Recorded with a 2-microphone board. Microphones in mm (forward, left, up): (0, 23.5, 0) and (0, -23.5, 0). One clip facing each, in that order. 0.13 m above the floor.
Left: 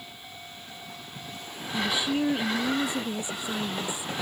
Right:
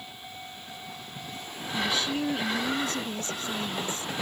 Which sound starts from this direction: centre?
A woman speaking, at 1.7 s.